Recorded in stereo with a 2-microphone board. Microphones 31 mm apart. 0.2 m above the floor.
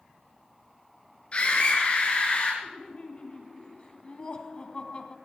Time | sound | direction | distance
1.3 | a scream | 40° left (ahead or behind) | 3.5 m
2.6 | laughter | 35° left (ahead or behind) | 1.1 m